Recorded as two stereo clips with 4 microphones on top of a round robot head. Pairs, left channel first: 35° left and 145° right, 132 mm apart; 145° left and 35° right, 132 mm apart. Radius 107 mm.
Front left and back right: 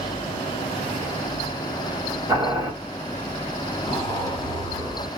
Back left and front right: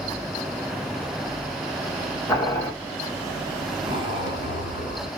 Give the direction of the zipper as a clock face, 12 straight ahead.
12 o'clock.